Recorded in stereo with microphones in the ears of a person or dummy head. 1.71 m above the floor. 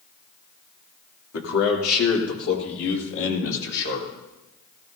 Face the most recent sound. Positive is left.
turn(degrees=65)  # may be behind; listen again after turning